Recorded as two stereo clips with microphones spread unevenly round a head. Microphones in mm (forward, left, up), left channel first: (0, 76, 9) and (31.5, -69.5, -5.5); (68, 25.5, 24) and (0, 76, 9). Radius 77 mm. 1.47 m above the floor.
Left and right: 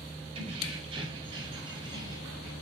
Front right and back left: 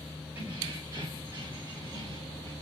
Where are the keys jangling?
140° right, 4 m; by 2.5 s 150° right, 5.5 m.